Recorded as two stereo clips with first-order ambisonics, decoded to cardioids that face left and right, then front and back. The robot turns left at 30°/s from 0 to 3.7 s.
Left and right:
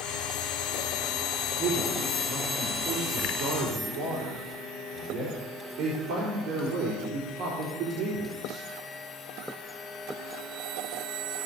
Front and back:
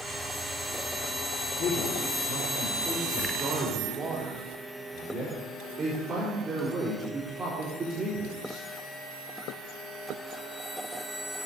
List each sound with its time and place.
1.6 s a man speaking: 40° right, 3.5 m; by 8.7 s 105° right, 3.5 m